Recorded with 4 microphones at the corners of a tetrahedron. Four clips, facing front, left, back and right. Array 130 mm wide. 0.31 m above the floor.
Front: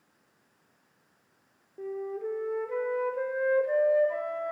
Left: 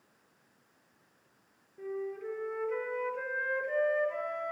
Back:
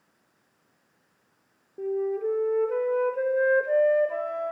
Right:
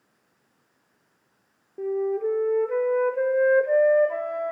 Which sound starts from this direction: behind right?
A flute, at 1.8 s.